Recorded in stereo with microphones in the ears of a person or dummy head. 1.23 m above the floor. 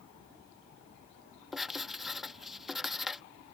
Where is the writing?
5° left (ahead or behind).